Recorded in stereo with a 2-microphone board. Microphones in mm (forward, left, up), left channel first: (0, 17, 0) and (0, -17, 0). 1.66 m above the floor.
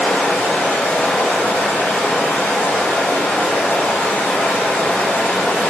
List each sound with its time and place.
0.0 s running water: 55° left (ahead or behind), 1.3 m